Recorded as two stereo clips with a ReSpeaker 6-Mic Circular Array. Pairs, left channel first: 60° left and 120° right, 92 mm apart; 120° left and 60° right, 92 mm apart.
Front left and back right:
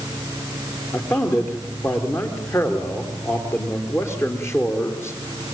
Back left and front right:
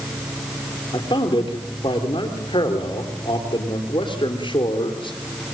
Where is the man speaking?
120° left, 3.5 m.